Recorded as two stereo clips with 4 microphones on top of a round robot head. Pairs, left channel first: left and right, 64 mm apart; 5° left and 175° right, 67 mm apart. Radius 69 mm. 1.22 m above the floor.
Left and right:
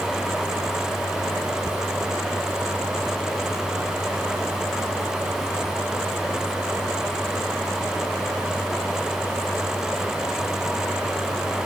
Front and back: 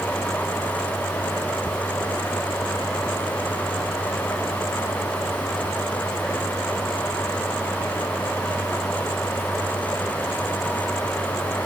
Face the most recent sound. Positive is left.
No sound to turn to.